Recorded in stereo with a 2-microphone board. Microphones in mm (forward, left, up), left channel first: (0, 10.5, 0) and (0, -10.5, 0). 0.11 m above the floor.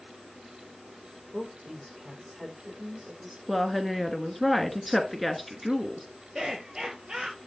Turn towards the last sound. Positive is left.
turn(degrees=-30)  # may be behind; listen again after turning